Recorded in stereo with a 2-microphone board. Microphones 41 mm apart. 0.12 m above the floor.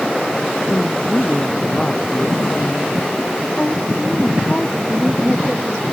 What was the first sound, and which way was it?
A woman speaking, 25° left (ahead or behind).